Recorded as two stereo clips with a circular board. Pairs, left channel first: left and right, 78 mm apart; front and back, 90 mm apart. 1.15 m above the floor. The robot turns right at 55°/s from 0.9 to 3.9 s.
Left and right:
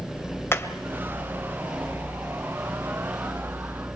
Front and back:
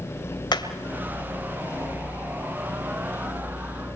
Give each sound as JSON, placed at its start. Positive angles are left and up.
{"t": 0.5, "sound": "hammering", "azimuth_deg": 35, "distance_m": 2.0}